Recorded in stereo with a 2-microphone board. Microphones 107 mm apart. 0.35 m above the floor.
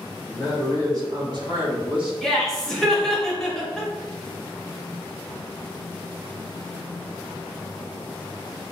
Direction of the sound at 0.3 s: 5° right (ahead or behind).